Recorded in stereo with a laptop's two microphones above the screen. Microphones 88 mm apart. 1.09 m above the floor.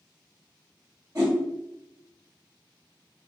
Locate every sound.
1.1 s a whoosh: 45° right (ahead or behind), 1.3 m